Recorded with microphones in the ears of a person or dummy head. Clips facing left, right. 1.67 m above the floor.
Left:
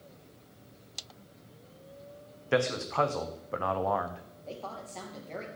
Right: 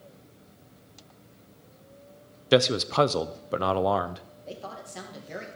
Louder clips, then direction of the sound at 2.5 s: Right 6 dB; 55° right (ahead or behind).